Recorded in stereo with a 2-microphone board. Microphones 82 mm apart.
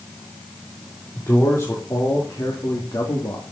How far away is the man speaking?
About 4 m.